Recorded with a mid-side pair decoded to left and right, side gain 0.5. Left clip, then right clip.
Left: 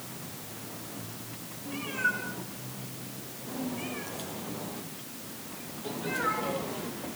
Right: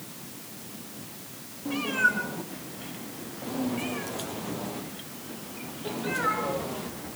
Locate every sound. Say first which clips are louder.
1.6 s a cat meowing: right 5 dB; 55° right, 5.5 m; by 6.9 s 10° right, 5.5 m